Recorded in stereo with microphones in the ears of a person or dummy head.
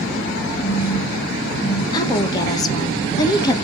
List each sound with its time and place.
0.6 s a phone buzzing: 60° left (ahead or behind), 4 m
1.9 s a woman speaking: 15° left (ahead or behind), 1.2 m